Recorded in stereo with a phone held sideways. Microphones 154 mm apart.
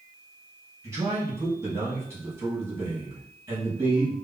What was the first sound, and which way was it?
A man speaking, 20° right (ahead or behind).